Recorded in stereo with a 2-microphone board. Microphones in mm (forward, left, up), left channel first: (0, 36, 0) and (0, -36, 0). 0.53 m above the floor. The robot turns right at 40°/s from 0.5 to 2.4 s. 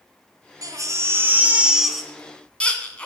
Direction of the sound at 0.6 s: 55° right (ahead or behind).